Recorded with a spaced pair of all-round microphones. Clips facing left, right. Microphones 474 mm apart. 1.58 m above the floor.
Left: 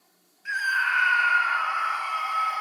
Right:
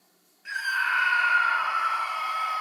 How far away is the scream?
About 1.4 m.